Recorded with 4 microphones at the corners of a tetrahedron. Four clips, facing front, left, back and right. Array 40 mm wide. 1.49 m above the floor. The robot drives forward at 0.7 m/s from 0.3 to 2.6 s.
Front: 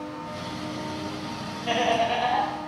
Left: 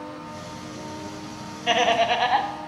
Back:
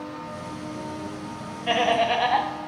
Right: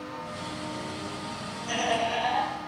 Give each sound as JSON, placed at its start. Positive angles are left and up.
{"t": 1.7, "sound": "laughter", "azimuth_deg": 105, "distance_m": 1.3}